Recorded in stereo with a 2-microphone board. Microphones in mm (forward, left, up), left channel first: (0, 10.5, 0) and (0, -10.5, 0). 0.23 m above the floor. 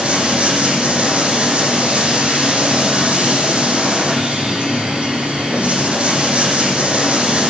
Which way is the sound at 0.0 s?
70° right (ahead or behind).